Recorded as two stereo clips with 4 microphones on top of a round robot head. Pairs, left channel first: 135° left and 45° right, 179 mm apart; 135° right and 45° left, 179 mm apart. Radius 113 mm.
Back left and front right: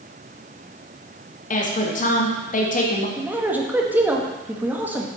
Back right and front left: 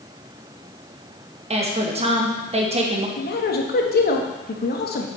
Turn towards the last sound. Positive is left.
turn(degrees=-125)